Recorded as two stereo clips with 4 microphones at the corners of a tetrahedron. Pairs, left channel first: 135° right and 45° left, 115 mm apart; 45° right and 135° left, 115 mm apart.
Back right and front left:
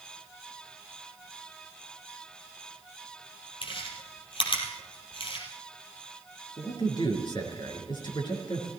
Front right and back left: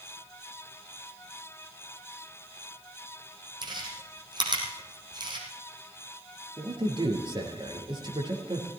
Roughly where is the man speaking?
Behind.